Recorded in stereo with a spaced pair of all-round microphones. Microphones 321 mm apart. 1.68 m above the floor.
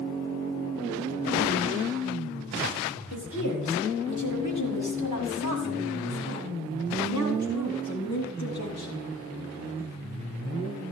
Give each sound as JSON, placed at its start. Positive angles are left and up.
{"t": 3.1, "sound": "a woman speaking", "side_deg": 70, "distance_m": 5.0}